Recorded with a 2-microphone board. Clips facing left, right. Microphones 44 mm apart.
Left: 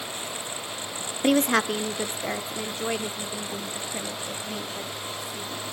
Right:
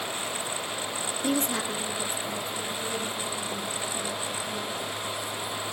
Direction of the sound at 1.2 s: 60° left (ahead or behind).